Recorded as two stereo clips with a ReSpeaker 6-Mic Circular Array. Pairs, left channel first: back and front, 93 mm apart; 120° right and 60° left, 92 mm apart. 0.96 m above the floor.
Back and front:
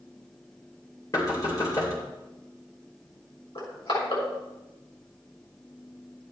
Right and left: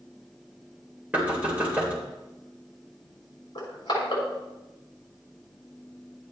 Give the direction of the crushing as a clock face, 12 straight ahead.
5 o'clock.